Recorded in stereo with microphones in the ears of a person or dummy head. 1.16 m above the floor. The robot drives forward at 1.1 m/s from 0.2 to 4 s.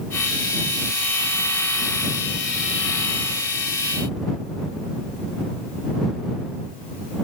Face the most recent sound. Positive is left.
No sound to turn to.